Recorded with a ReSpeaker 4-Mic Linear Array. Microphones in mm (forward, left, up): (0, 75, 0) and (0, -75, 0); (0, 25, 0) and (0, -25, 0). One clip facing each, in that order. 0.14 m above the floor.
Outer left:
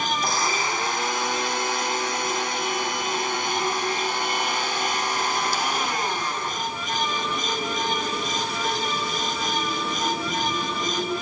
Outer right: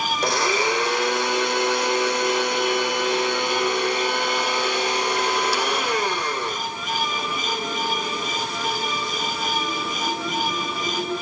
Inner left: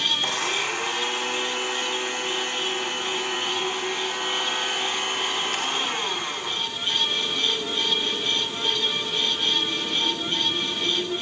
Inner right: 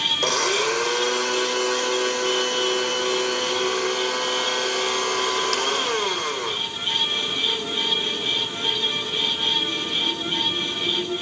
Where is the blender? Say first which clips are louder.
Outer right 4 dB, inner right 4 dB; 70° right (ahead or behind), 4 m.